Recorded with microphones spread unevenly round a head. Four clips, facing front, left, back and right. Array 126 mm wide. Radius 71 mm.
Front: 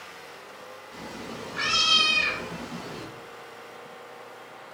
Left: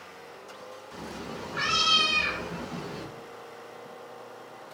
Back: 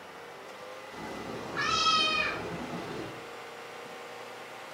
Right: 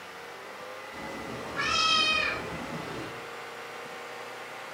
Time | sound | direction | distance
0.9 | a cat meowing | 85° left | 2 m